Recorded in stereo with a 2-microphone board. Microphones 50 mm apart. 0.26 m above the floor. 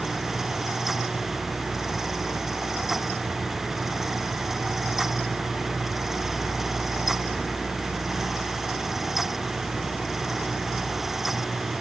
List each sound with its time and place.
Only background noise.